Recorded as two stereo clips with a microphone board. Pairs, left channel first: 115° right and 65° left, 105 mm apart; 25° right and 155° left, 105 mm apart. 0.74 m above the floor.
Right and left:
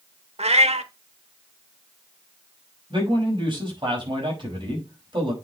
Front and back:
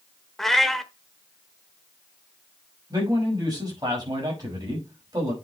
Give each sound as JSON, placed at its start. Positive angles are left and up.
{"t": 0.4, "sound": "a cat meowing", "azimuth_deg": 65, "distance_m": 1.0}
{"t": 2.9, "sound": "a man speaking", "azimuth_deg": 110, "distance_m": 6.0}